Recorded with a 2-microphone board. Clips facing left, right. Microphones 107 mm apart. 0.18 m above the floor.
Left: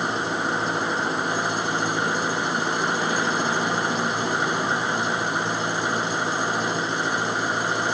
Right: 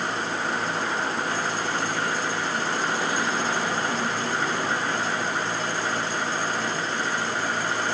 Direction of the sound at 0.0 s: 20° left (ahead or behind).